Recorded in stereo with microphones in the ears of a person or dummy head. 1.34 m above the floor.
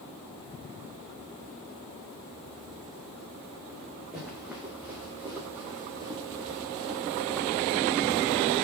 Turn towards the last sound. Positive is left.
turn(degrees=-40)  # may be behind; listen again after turning